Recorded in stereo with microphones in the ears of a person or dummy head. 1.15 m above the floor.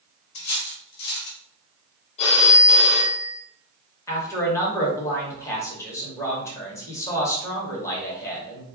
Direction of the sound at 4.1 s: 15° left (ahead or behind).